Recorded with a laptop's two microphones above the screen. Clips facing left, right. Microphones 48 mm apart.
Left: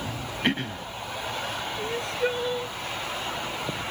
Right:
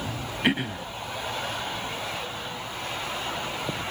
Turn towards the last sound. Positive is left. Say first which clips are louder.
# left 5 dB
turn(degrees=70)  # may be behind; listen again after turning